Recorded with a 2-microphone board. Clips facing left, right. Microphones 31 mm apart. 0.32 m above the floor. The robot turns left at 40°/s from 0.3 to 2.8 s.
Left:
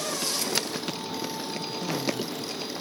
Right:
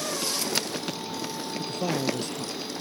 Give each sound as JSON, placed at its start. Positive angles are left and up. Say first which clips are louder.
{"t": 1.6, "sound": "a man speaking", "louder": "right 4 dB", "azimuth_deg": -65}